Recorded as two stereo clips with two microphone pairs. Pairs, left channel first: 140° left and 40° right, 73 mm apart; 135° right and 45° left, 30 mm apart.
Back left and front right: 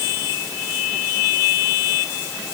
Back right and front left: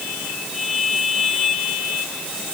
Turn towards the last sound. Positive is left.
No sound to turn to.